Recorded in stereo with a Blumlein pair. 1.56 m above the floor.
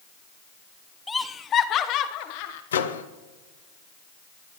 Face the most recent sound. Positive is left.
turn(degrees=65)